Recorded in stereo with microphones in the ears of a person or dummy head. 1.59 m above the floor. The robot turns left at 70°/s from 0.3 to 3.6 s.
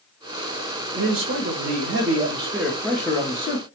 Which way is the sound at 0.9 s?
45° right.